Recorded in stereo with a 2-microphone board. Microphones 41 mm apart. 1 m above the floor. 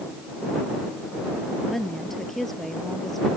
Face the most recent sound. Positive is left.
turn(degrees=10)  # may be behind; listen again after turning